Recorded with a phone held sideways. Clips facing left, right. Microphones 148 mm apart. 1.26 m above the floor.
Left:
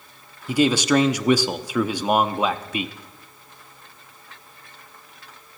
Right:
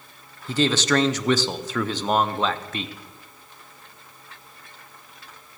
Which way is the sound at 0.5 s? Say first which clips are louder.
Left 3 dB; 10° left (ahead or behind).